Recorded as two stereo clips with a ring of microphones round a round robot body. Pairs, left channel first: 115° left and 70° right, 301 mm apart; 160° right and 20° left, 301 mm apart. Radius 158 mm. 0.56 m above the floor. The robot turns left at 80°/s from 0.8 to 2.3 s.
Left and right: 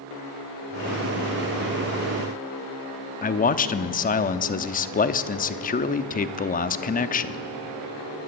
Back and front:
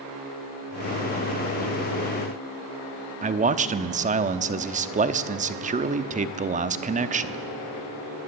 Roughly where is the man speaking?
Left.